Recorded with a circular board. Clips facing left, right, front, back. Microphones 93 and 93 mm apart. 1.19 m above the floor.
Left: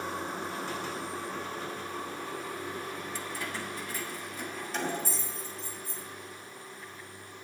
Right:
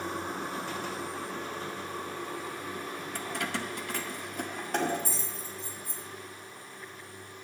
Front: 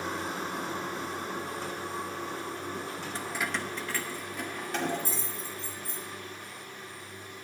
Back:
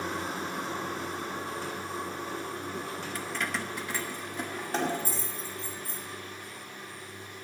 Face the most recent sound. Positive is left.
turn(degrees=-135)